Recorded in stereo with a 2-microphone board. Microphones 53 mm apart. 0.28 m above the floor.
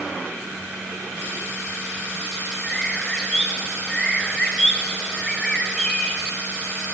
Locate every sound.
2.6 s a bird: 10° left (ahead or behind), 1.1 m